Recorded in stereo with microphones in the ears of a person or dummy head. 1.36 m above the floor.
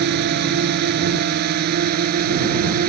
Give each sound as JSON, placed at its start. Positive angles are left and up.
{"t": 0.0, "sound": "a drone", "side_deg": -60}